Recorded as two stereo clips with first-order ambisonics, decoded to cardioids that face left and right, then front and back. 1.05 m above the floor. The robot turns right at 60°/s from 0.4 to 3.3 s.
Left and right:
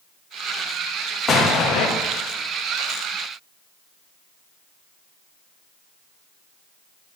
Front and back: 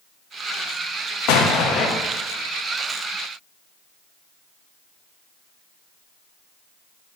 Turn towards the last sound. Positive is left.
turn(degrees=145)